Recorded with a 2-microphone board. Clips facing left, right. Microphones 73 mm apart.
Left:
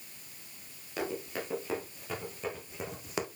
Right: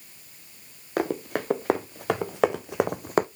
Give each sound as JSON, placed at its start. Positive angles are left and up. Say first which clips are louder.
{"t": 1.0, "sound": "running footsteps", "louder": "right 8 dB", "side_deg": -55, "distance_m": 2.0}